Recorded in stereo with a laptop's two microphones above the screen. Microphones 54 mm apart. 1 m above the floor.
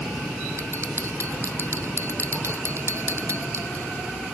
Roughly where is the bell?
Right.